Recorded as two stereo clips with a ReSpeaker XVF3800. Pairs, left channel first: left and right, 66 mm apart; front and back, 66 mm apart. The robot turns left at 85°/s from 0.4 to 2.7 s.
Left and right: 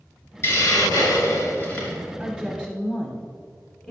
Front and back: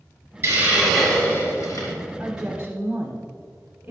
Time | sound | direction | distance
0.4 | a hiss | 135° left | 3 m
2.2 | a woman speaking | 125° right | 1.0 m